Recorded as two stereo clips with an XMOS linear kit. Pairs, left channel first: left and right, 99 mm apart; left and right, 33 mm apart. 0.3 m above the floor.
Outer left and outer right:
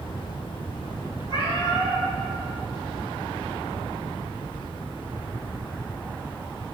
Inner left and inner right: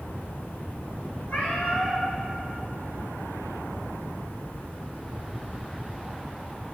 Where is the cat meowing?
50° left (ahead or behind), 1.6 m.